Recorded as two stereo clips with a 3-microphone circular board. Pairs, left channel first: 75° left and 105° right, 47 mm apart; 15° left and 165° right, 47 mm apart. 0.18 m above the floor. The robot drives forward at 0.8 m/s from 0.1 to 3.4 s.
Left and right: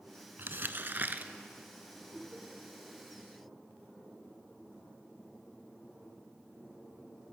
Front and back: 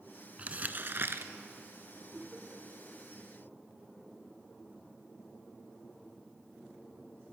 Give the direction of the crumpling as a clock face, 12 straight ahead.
4 o'clock.